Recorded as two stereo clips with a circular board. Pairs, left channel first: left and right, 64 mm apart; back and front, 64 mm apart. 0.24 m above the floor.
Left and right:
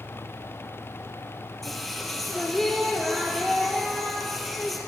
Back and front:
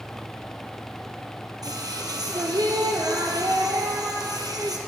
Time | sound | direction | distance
1.6 | singing | straight ahead | 1.5 m